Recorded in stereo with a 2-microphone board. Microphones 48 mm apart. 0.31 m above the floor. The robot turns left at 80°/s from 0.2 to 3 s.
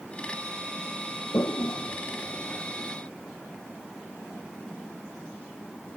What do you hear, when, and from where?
1.3 s a toilet flushing: 70° left (ahead or behind); by 3.0 s 20° right (ahead or behind)